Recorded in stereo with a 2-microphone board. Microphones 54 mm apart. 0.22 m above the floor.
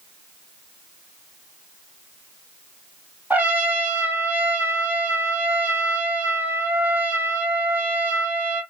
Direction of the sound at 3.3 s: 40° right (ahead or behind).